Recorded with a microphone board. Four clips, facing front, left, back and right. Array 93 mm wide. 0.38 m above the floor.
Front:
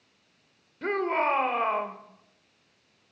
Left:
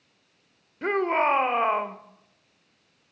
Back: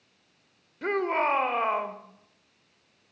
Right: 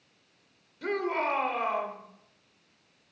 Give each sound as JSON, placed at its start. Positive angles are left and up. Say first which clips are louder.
{"t": 0.8, "sound": "a shout", "louder": "left 6 dB, even", "azimuth_deg": 100, "distance_m": 1.2}